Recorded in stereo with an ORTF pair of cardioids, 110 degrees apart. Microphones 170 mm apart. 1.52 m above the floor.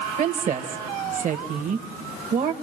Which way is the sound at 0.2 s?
50° right.